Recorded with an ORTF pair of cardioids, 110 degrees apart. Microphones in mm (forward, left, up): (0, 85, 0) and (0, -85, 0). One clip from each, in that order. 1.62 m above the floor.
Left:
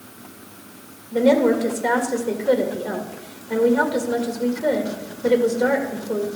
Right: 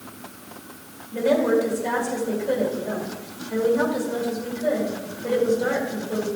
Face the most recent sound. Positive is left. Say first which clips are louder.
# left 3 dB
turn(degrees=55)